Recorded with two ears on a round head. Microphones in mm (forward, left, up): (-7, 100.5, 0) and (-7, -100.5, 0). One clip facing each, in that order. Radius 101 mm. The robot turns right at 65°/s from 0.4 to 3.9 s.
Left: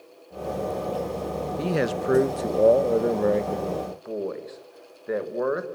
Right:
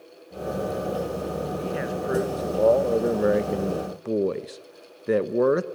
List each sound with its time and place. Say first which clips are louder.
1.6 s a man speaking: left 3 dB; 85° left, 1.2 m; by 5.7 s 125° right, 1.2 m